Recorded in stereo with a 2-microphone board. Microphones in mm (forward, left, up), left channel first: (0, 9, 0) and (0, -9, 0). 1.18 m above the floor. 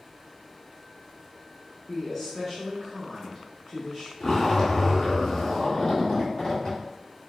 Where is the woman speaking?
10° left (ahead or behind), 0.9 m.